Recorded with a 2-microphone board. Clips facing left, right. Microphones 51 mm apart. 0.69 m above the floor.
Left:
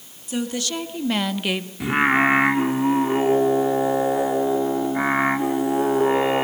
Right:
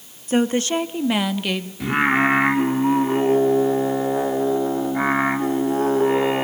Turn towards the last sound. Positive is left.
turn(degrees=5)  # may be behind; listen again after turning